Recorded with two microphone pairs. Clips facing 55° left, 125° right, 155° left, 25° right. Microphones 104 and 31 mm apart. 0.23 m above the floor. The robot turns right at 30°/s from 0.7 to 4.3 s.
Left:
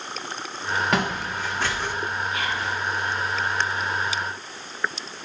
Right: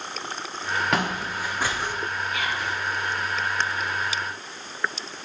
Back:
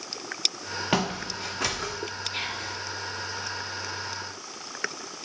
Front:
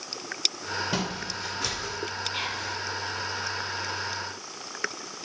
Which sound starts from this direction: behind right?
Whispering, at 2.3 s.